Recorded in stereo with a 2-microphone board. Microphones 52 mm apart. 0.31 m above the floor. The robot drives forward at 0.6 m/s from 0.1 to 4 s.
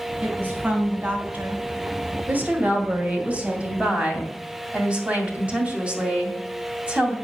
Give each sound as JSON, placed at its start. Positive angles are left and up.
{"t": 0.2, "sound": "a woman speaking", "side_deg": -30, "distance_m": 3.0}
{"t": 2.3, "sound": "a woman speaking", "side_deg": -35, "distance_m": 1.7}